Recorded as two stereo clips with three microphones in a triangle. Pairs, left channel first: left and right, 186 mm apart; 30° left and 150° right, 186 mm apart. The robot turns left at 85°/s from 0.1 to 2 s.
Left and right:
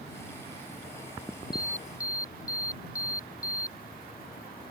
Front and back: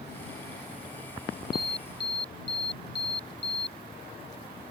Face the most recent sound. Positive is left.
turn(degrees=20)